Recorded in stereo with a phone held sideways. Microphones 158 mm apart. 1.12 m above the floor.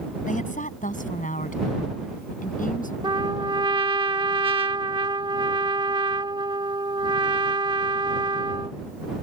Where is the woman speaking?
55° left (ahead or behind).